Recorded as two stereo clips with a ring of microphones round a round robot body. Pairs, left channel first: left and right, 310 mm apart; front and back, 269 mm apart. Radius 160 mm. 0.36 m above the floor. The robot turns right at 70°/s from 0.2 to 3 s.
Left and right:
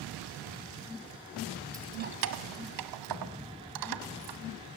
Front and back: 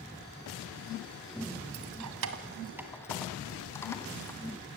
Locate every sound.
1.7 s keys jangling: 170° right, 1.7 m; by 4.4 s 80° right, 1.7 m